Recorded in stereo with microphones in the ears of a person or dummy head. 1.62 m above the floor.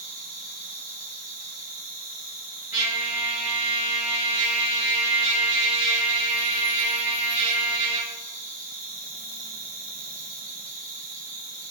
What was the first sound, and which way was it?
An insect, 40° right (ahead or behind).